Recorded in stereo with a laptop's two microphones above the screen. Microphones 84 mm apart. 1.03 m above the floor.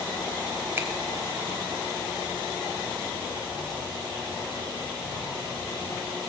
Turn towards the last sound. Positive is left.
turn(degrees=-25)  # may be behind; listen again after turning